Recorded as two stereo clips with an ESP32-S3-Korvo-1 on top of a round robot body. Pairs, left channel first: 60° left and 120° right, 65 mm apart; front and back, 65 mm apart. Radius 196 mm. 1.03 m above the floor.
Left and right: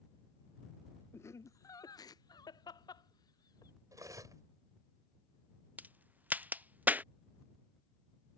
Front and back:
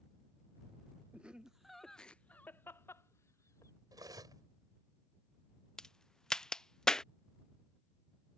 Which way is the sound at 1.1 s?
110° left.